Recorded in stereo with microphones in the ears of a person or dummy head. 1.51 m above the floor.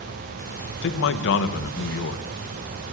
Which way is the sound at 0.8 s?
70° left (ahead or behind).